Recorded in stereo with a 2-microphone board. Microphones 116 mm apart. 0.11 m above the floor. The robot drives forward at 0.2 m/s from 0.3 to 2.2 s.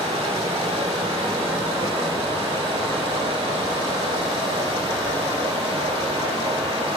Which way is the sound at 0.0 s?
65° right (ahead or behind).